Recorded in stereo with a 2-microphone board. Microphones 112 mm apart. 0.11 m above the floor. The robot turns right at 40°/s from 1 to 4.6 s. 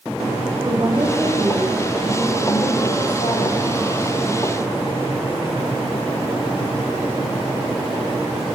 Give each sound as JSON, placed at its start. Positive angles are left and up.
{"t": 0.6, "sound": "a woman speaking", "azimuth_deg": -35, "distance_m": 8.5}